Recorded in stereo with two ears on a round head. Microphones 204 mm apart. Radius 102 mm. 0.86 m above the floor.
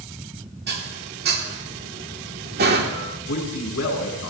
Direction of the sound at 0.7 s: 45° right (ahead or behind).